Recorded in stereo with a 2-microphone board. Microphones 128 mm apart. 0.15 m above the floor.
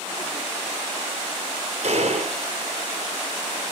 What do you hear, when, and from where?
1.8 s a gunshot: 55° right (ahead or behind), 2.5 m